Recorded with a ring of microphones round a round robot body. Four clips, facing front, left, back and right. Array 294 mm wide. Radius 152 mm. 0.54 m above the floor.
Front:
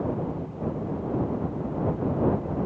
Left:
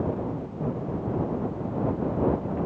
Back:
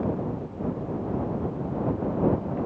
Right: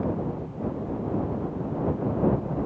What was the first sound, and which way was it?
Only background noise.